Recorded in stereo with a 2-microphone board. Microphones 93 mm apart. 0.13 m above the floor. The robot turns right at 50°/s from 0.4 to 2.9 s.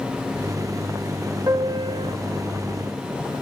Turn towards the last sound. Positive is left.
turn(degrees=-70)